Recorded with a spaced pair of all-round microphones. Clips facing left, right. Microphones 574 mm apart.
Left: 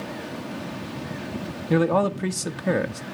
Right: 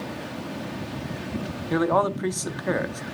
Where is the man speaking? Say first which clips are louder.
Left 2 dB; 55° left (ahead or behind), 0.6 m.